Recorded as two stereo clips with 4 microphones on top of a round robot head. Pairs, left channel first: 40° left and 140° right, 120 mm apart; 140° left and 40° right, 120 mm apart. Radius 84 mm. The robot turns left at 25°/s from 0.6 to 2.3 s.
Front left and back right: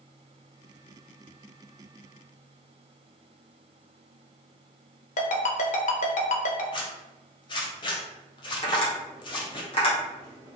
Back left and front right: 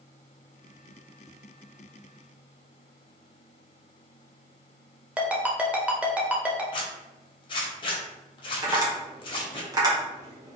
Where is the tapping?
15° left, 1.7 m.